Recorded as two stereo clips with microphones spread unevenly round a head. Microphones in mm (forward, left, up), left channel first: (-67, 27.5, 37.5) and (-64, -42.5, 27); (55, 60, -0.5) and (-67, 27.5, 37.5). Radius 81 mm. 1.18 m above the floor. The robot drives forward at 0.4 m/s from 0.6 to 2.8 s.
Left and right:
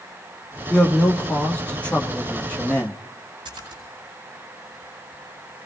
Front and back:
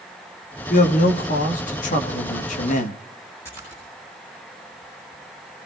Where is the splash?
60° right, 7.5 m.